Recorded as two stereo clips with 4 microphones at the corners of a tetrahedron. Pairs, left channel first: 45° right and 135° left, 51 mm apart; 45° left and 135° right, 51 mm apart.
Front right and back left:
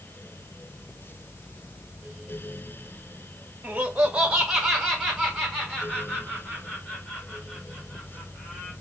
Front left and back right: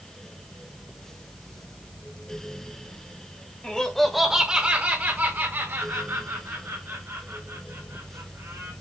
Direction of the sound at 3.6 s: 95° left.